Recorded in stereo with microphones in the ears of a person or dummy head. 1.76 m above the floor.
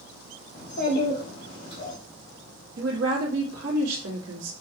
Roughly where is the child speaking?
Left.